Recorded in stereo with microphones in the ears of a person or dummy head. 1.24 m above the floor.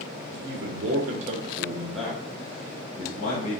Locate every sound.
0.3 s a man speaking: 70° right (ahead or behind), 1.0 m; by 3.6 s 45° left (ahead or behind), 1.3 m